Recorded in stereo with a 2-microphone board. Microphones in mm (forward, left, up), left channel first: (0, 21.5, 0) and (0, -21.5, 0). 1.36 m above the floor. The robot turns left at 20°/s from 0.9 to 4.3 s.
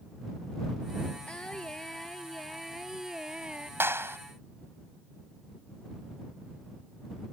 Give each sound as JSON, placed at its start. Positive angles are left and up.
{"t": 1.3, "sound": "singing", "azimuth_deg": 30}
{"t": 3.8, "sound": "a clap", "side_deg": -65}